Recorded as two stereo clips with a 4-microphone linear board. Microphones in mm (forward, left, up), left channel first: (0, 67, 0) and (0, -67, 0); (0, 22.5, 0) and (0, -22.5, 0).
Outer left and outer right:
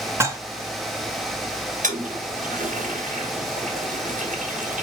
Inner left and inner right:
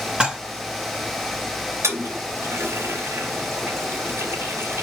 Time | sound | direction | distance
0.2 | dishes clattering | 20° right (ahead or behind) | 2 m
1.8 | a toilet flushing | 75° right (ahead or behind) | 2.5 m